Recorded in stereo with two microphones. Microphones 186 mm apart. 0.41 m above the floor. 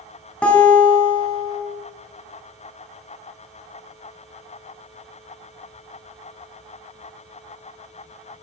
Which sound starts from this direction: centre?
A guitar, at 0.4 s.